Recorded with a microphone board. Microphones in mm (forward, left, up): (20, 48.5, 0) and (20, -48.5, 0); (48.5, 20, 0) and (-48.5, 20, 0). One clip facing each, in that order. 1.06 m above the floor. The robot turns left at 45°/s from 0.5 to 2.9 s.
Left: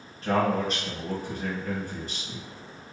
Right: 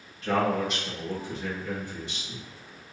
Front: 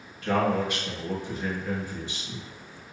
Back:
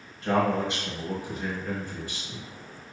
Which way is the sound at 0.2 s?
130° left.